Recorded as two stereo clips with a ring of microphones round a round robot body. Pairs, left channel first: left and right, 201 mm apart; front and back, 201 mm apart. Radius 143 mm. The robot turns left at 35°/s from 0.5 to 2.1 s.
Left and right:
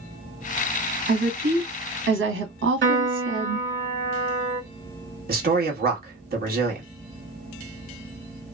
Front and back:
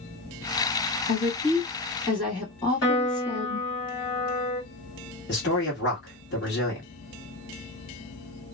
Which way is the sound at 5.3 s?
45° right.